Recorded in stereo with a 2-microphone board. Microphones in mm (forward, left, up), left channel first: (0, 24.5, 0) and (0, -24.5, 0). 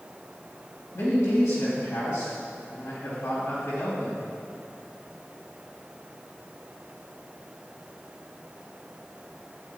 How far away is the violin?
No violin in this recording.